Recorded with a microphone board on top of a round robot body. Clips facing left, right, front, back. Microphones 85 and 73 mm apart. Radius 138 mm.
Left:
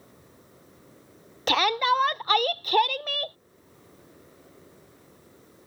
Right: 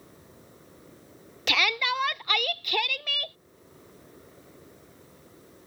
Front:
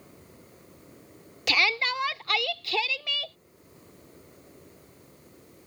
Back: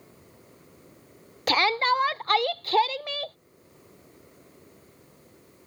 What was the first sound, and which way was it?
A shout, 135° left.